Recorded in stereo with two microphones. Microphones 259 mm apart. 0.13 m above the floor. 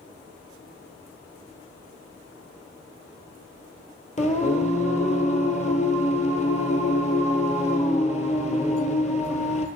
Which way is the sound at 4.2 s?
30° left (ahead or behind).